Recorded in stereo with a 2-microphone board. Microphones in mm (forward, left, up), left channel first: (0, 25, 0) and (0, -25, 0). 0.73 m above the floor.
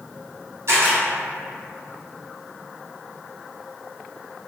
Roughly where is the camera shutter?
Right.